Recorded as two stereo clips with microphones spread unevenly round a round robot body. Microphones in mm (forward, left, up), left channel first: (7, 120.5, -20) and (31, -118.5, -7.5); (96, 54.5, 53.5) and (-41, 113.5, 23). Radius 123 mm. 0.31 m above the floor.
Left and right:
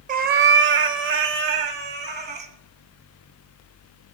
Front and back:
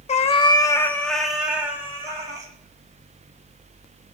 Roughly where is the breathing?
I don't hear breathing.